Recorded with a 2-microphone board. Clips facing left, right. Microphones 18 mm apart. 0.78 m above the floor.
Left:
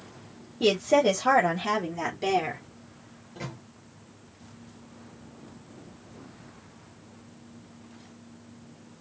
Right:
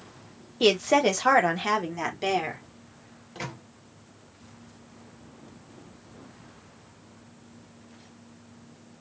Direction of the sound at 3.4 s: 45° right (ahead or behind).